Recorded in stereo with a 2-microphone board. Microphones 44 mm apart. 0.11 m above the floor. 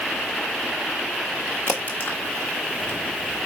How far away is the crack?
About 1.5 m.